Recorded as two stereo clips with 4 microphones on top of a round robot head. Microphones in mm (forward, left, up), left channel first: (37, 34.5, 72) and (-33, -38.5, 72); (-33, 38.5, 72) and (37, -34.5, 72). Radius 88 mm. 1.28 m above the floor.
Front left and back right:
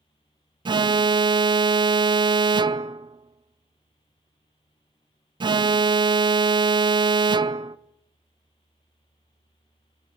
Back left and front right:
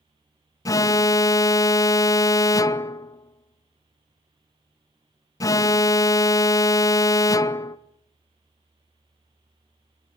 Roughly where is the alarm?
Behind.